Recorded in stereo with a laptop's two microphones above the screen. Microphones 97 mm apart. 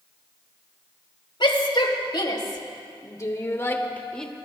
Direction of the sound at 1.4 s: 55° left (ahead or behind).